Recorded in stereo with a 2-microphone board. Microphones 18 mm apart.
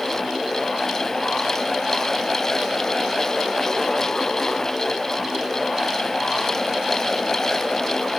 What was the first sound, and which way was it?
Only background noise.